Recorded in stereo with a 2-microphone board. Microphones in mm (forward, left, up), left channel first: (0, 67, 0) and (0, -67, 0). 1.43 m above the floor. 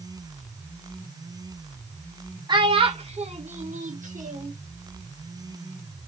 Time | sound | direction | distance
2.5 | a child speaking | 35° right (ahead or behind) | 1.7 m